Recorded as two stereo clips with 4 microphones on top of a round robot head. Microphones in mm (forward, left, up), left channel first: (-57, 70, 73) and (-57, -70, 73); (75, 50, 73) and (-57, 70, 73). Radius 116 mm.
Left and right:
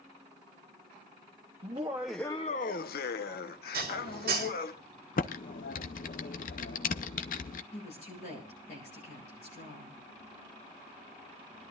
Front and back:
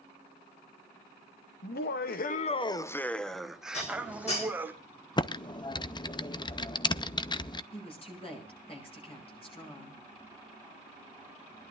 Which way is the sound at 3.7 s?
65° right.